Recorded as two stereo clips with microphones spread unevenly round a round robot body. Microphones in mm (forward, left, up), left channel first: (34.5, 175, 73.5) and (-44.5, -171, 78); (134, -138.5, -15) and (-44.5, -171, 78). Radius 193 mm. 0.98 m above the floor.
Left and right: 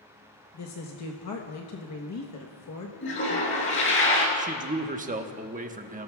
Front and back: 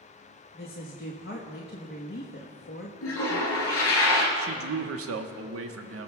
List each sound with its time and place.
0.5 s a woman speaking: 30° left, 1.1 m
3.0 s a toilet flushing: 20° left, 3 m
4.4 s a man speaking: 170° right, 1.1 m